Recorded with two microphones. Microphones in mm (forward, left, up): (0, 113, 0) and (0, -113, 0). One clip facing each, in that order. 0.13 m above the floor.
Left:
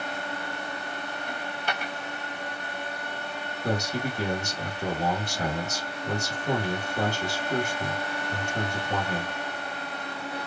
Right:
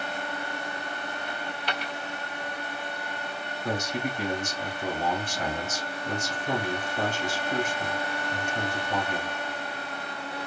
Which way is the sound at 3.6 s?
40° left (ahead or behind).